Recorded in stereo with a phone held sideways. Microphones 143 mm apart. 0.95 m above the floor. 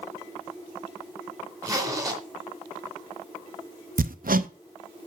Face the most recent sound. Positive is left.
turn(degrees=-80)